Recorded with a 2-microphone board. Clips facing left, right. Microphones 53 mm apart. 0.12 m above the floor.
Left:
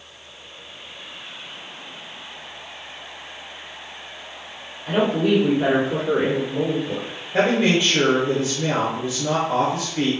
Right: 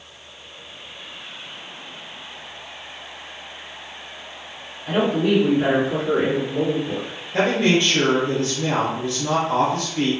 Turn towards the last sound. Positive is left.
turn(degrees=15)  # may be behind; listen again after turning